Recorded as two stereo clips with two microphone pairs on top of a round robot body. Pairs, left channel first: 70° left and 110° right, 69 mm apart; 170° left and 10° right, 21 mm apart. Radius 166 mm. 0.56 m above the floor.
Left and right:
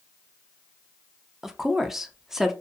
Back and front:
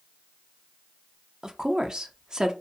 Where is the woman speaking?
20° right, 0.7 m.